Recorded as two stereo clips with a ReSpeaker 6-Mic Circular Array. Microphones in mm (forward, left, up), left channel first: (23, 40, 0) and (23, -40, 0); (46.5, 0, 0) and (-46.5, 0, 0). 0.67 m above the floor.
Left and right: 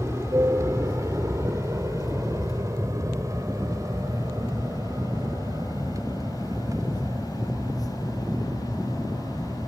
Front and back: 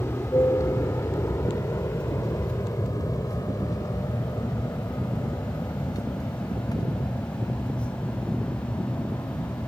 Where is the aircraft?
50° right; by 9.7 s 45° right.